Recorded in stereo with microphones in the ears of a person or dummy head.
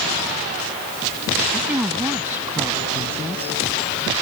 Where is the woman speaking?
10° right (ahead or behind).